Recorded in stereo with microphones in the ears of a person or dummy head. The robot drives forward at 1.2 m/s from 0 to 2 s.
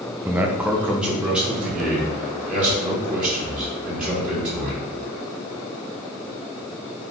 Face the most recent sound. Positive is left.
turn(degrees=-5)  # may be behind; listen again after turning